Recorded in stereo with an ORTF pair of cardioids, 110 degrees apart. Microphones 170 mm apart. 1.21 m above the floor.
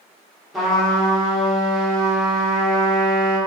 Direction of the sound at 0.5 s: Straight ahead.